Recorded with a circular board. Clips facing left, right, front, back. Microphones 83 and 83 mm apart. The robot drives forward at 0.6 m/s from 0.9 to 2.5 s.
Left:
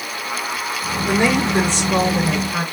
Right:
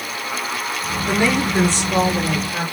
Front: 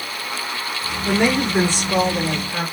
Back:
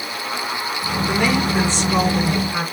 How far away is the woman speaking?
About 1.4 m.